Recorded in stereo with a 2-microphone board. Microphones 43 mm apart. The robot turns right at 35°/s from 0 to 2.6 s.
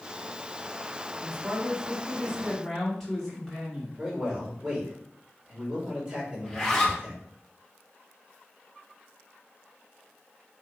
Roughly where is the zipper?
Centre.